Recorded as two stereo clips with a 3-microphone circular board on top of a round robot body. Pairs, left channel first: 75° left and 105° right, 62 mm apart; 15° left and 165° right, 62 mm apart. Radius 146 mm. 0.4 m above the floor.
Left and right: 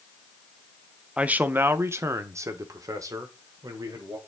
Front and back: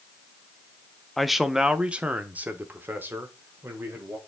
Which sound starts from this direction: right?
A man speaking, at 1.2 s.